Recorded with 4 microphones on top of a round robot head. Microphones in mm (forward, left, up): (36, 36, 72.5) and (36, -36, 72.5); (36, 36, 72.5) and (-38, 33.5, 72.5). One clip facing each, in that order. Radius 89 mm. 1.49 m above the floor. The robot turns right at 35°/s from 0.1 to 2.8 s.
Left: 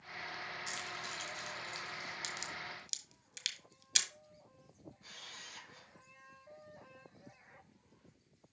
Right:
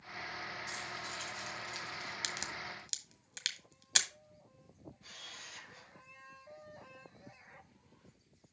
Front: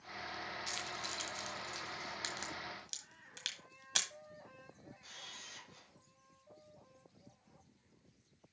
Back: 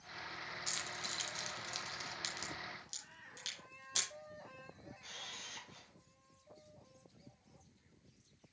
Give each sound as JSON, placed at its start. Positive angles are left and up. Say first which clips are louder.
{"t": 0.7, "sound": "keys jangling", "louder": "right 1 dB, front 2 dB", "azimuth_deg": 120, "distance_m": 1.2}
{"t": 2.2, "sound": "a crack", "louder": "right 2 dB, front 2 dB", "azimuth_deg": -65, "distance_m": 1.1}
{"t": 5.0, "sound": "a camera shutter", "louder": "right 1 dB, back 4 dB", "azimuth_deg": 150, "distance_m": 2.5}